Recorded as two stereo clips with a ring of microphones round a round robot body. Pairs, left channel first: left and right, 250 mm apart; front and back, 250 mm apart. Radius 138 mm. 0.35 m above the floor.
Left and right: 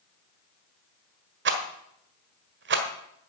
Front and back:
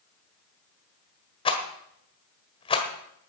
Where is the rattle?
65° right, 1.5 m.